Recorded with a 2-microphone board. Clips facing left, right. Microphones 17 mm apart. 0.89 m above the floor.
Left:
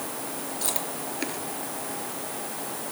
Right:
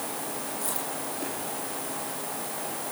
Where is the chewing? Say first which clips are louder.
Left 1 dB; 45° left (ahead or behind), 3.5 m.